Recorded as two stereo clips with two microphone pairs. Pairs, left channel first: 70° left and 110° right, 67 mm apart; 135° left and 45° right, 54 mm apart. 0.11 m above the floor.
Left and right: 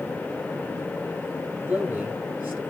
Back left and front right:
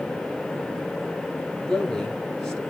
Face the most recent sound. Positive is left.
turn(degrees=-155)